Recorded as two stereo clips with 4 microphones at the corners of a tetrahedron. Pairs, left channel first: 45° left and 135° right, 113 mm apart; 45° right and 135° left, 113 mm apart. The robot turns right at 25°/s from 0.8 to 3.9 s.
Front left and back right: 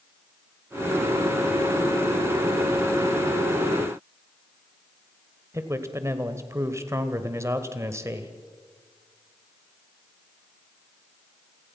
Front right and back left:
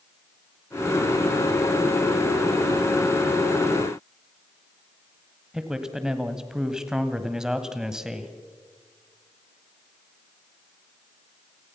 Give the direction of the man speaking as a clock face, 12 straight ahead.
5 o'clock.